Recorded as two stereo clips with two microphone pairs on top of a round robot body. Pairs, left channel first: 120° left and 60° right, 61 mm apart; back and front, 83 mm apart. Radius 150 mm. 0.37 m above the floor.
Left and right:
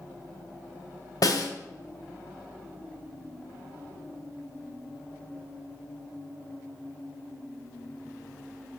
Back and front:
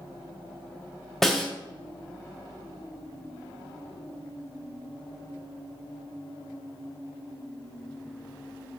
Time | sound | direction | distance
1.2 | a snare drum | 95° left | 1.8 m